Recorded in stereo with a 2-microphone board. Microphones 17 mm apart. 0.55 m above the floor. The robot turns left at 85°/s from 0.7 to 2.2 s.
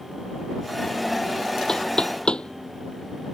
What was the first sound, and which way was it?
Knocking, 40° left (ahead or behind).